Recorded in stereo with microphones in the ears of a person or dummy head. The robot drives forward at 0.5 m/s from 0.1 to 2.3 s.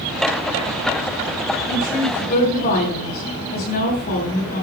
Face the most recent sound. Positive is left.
turn(degrees=50)  # may be behind; listen again after turning